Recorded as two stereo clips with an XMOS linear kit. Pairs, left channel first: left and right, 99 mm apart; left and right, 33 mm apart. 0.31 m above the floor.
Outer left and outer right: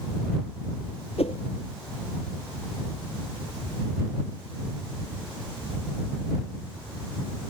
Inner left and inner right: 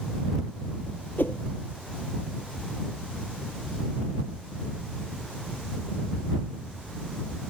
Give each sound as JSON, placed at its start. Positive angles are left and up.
{"t": 1.2, "sound": "a whoosh", "side_deg": 85}